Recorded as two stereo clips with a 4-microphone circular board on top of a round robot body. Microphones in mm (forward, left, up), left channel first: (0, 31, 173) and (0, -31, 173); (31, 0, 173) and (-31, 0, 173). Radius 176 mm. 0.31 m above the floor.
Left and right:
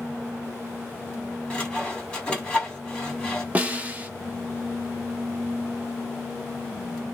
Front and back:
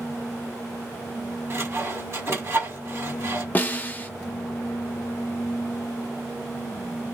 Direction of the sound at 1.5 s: 160° left.